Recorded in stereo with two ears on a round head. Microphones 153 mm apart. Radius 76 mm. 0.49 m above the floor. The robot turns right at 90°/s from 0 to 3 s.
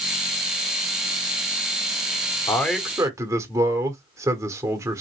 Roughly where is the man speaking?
Behind.